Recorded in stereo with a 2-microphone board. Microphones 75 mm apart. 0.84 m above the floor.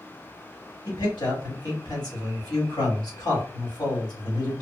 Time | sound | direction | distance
0.8 | a man speaking | 70° left (ahead or behind) | 2 m